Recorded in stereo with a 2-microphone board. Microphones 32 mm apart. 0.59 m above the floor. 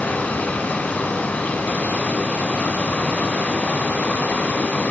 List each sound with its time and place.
0.0 s running water: 70° left (ahead or behind), 2 m